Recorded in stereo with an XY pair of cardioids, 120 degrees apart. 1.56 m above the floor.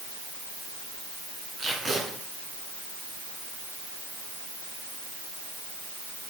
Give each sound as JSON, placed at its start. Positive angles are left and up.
{"t": 1.6, "sound": "tape being pulled", "azimuth_deg": -25, "distance_m": 7.5}